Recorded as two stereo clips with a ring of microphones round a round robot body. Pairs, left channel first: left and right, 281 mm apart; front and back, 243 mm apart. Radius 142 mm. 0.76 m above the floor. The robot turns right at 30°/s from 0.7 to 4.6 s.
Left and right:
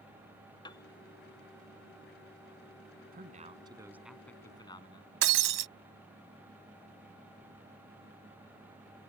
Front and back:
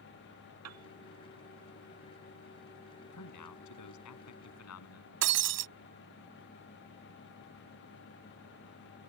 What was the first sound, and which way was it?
A piano, 165° left.